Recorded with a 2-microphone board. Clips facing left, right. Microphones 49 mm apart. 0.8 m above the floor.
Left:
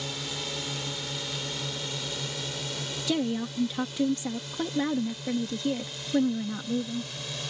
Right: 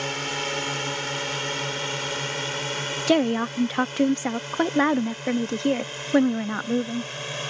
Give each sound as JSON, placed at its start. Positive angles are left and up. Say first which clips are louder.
{"t": 0.0, "sound": "a drone", "louder": "right 7 dB", "side_deg": -50}
{"t": 3.1, "sound": "a woman speaking", "louder": "right 8 dB", "side_deg": -55}